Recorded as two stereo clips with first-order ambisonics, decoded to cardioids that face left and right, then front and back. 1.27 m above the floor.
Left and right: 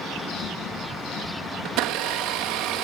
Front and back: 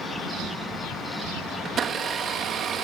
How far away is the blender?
About 1.2 m.